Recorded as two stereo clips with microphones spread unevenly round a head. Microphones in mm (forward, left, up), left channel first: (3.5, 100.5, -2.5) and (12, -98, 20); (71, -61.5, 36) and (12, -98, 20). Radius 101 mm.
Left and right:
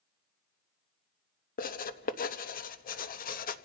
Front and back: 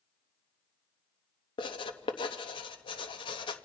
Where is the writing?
45° left, 0.8 m.